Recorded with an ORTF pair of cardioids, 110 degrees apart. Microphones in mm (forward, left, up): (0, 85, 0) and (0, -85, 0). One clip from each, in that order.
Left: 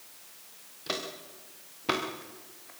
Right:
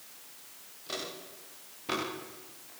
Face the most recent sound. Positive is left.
turn(degrees=40)